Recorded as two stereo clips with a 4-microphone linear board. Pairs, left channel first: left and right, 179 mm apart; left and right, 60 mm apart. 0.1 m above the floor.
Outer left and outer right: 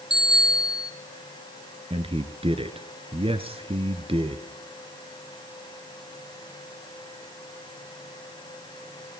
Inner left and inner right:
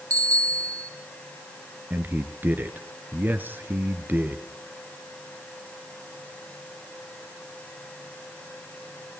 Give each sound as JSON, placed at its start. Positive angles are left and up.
{"t": 0.1, "sound": "a bicycle bell", "side_deg": -70, "distance_m": 2.5}
{"t": 1.9, "sound": "a man speaking", "side_deg": -30, "distance_m": 1.3}